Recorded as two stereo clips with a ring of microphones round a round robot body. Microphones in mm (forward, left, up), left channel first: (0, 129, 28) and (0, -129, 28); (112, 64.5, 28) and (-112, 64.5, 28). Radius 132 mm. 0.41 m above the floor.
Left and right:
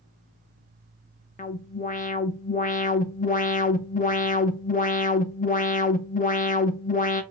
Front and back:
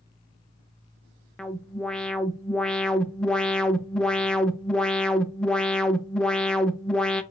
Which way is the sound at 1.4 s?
85° left.